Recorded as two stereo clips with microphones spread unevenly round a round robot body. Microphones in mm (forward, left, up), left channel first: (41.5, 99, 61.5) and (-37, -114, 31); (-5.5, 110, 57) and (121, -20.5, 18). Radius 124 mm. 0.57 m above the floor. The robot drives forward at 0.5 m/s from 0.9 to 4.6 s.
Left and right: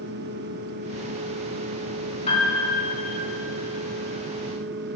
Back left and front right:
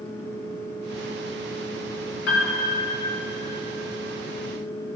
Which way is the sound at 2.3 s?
135° left.